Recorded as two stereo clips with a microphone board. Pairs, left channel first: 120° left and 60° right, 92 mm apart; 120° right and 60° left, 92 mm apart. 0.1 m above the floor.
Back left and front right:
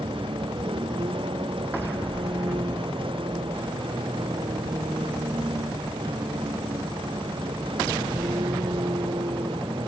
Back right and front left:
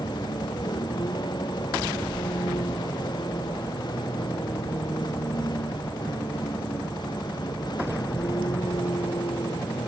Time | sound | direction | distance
0.0 | a vehicle | 80° right | ?